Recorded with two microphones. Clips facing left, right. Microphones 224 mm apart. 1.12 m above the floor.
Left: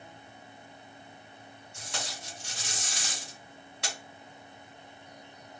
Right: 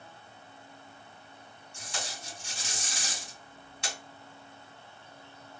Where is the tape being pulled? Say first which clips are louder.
Even; 65° left (ahead or behind), 2.5 m.